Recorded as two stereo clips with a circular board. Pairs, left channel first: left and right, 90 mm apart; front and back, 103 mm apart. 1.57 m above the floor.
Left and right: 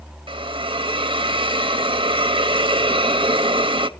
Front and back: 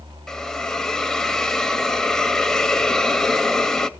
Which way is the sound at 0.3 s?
85° right.